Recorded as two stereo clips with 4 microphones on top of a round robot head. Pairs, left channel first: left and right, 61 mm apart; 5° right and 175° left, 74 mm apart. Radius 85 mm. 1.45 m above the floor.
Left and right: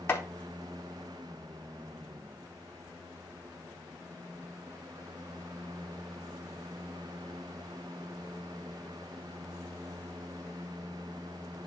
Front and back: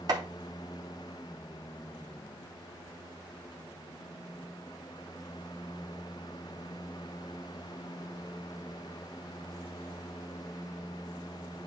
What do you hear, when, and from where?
0.1 s chopping: 140° left, 2.5 m